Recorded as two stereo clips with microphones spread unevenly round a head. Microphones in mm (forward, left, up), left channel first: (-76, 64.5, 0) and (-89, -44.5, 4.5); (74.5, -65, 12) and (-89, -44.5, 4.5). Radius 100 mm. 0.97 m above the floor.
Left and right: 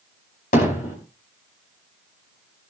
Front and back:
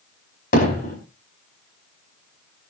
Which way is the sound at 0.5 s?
45° left.